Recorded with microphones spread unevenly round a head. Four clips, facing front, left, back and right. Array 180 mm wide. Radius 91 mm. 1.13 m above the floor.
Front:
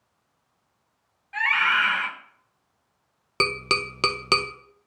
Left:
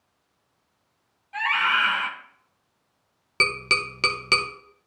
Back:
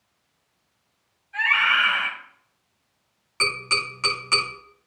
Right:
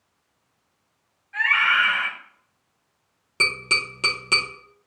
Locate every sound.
1.3 s a scream: 50° left, 1.8 m
3.4 s tapping: 5° left, 0.8 m